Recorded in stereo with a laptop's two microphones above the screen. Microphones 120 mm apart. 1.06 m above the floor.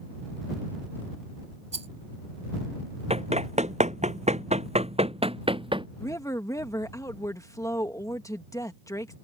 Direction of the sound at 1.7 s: 70° right (ahead or behind).